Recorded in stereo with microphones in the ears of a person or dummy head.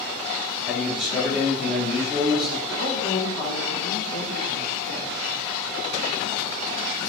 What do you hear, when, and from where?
0.7 s a man speaking: centre (ahead or behind), 1.1 m
2.7 s a woman speaking: 20° left (ahead or behind), 1.3 m